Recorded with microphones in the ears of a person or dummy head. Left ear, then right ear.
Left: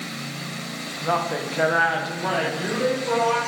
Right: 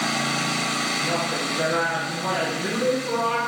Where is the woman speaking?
40° left (ahead or behind), 1.3 m; by 3.4 s 15° left (ahead or behind), 3 m.